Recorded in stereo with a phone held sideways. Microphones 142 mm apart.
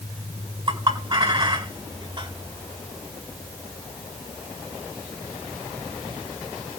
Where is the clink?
35° right (ahead or behind), 3.5 m.